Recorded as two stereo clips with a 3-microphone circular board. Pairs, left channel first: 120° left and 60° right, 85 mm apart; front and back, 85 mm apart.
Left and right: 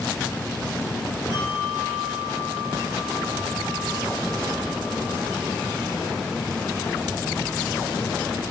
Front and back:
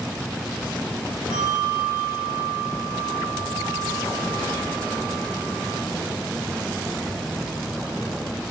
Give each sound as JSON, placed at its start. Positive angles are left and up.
{"t": 1.3, "sound": "a bell", "azimuth_deg": 15, "distance_m": 5.0}